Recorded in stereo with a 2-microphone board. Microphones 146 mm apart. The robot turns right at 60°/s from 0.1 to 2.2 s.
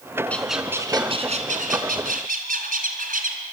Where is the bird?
170° left, 2.5 m; by 3.4 s 75° right, 2.5 m.